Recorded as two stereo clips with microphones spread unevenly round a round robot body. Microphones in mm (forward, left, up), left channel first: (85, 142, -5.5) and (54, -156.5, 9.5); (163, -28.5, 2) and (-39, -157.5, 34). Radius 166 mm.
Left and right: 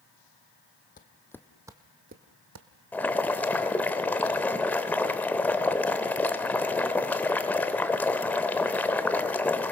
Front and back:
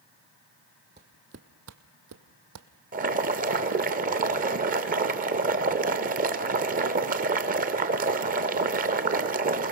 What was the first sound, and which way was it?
Footsteps, 150° left.